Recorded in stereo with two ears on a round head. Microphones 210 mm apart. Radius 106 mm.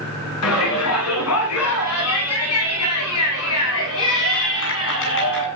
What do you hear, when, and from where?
0.4 s a shout: 80° left, 9.5 m; by 5.5 s 65° left (ahead or behind), 8.5 m